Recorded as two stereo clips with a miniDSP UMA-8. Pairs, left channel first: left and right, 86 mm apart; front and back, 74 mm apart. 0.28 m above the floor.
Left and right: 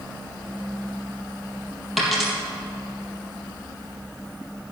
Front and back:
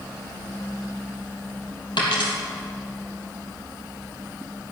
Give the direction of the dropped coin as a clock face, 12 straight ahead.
12 o'clock.